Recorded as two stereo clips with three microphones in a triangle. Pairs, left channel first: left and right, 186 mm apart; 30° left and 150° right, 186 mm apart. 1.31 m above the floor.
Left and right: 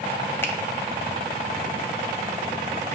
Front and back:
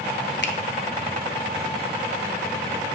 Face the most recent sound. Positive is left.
turn(degrees=15)